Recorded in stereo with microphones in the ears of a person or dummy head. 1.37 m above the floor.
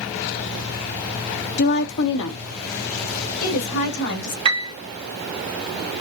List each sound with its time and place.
1.6 s a woman speaking: 60° left (ahead or behind), 0.5 m; by 4.3 s 80° left, 3 m
4.5 s a piano: 35° right (ahead or behind), 0.7 m